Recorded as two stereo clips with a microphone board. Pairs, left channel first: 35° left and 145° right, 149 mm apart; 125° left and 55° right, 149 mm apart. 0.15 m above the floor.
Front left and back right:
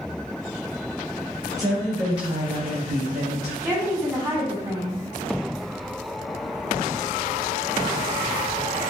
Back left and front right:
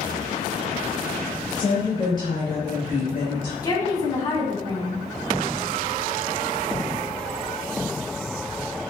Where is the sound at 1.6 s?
165° left, 1.7 m; by 3.5 s 175° left, 3 m.